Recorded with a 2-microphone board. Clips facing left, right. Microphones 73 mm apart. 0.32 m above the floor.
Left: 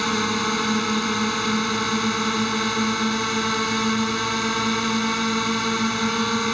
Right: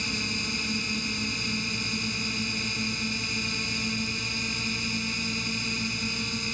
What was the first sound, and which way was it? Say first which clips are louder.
A drone: left 11 dB; 65° left (ahead or behind).